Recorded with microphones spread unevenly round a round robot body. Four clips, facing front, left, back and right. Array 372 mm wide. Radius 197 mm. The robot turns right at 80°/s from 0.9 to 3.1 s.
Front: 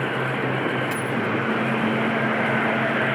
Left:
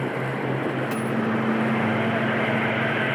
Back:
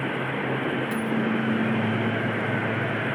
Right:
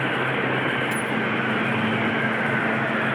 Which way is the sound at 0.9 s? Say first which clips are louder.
Even, front 1 dB; 15° left.